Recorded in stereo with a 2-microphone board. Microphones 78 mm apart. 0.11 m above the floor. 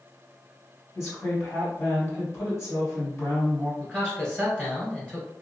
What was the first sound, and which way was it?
A woman speaking, 35° left (ahead or behind).